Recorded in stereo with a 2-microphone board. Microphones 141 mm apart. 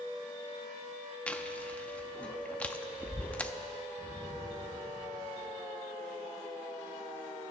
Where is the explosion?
15° left (ahead or behind), 4 m.